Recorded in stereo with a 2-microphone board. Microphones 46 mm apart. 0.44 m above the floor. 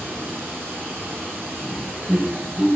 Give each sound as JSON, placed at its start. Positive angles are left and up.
{"t": 0.0, "sound": "running water", "side_deg": -60, "distance_m": 3.5}
{"t": 1.6, "sound": "laughter", "side_deg": -5, "distance_m": 2.0}